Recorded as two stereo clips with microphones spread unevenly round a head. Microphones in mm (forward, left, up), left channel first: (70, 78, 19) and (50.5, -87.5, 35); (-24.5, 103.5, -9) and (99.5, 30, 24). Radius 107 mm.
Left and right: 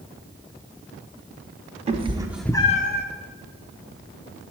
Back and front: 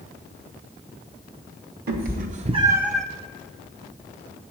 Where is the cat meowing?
50° right, 1.1 m; by 3.0 s 60° left, 0.9 m.